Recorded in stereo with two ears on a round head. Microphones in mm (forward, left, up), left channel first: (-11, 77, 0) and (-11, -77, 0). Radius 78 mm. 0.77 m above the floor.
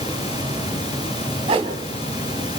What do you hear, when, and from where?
1.5 s a whoosh: 30° right (ahead or behind), 2.5 m